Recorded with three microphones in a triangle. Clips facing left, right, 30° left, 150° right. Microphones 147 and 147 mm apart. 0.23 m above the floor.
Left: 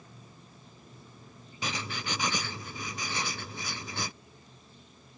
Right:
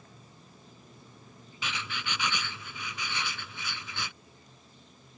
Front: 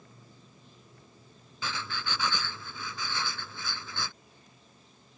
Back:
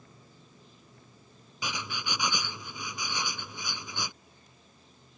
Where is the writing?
135° left.